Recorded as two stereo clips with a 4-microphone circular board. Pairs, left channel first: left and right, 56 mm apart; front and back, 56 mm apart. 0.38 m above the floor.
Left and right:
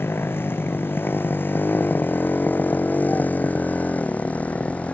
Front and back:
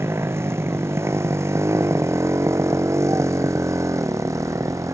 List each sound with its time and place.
0.0 s a motorcycle: 140° left; by 4.9 s 160° left